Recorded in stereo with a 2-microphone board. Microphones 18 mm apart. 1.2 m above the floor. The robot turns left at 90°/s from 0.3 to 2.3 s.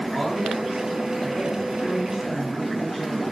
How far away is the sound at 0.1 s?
About 2 m.